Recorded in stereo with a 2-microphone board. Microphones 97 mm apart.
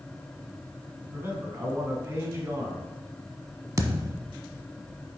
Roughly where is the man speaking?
Right.